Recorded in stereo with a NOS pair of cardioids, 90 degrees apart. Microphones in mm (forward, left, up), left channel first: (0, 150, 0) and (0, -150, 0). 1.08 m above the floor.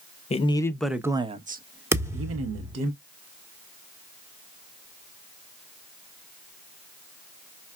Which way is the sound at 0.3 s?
20° left.